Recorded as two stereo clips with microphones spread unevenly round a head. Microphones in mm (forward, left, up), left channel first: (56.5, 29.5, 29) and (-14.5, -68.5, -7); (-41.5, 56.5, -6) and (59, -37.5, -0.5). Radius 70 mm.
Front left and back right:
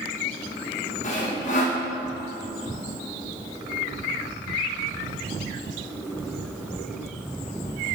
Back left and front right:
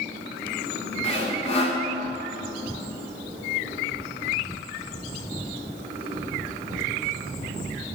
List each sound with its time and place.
1.0 s sawing: 95° left, 1.0 m